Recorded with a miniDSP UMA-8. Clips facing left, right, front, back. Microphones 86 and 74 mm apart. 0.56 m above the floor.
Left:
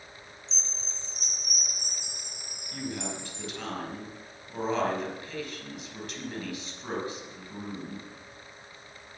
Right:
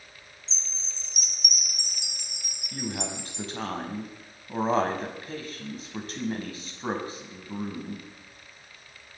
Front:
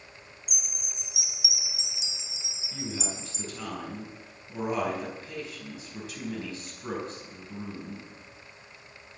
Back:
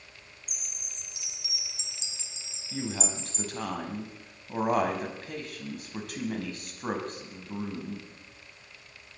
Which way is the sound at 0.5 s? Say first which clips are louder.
Left 3 dB, front 4 dB; 80° right.